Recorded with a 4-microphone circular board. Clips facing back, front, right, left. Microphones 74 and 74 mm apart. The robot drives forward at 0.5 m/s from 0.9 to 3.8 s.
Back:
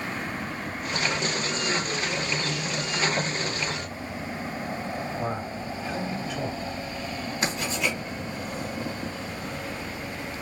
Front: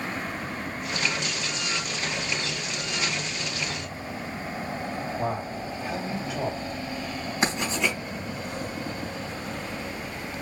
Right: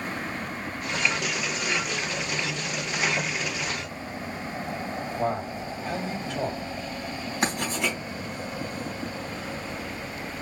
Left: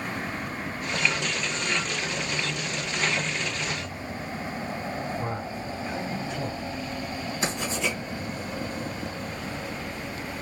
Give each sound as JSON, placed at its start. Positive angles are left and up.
{"t": 5.2, "sound": "a man speaking", "azimuth_deg": -70, "distance_m": 3.5}
{"t": 7.4, "sound": "writing", "azimuth_deg": -55, "distance_m": 3.0}